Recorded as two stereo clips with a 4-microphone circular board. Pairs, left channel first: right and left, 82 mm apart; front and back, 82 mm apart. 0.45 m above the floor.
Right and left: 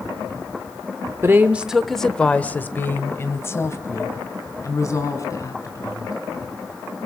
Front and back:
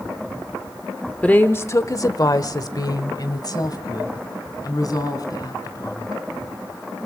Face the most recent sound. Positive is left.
turn(degrees=-45)